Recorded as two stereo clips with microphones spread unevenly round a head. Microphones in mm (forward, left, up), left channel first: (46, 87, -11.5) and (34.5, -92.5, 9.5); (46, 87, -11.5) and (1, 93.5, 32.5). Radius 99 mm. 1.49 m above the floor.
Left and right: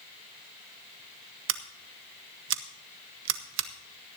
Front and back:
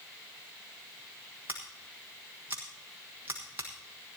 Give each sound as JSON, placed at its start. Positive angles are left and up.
{"t": 1.5, "sound": "scissors", "azimuth_deg": -120, "distance_m": 1.0}